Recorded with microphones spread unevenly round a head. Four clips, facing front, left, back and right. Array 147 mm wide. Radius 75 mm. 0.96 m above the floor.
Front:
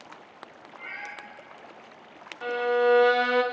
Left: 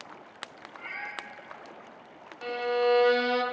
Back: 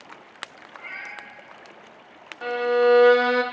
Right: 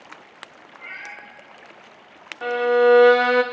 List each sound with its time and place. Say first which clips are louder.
0.8 s a cat meowing: right 1 dB, even; 30° left, 6.5 m
2.4 s a violin: right 10 dB, back 3 dB; 105° right, 0.8 m